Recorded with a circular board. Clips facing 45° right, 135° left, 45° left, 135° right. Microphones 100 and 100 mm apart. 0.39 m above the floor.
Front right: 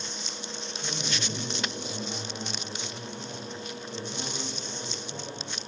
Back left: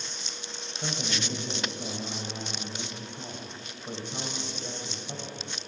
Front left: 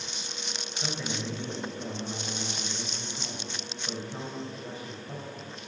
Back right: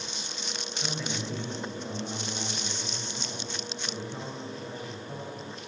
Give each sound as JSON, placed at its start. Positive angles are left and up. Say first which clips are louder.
{"t": 0.8, "sound": "a man speaking", "louder": "back left 2 dB, front left 1 dB", "azimuth_deg": 125, "distance_m": 2.5}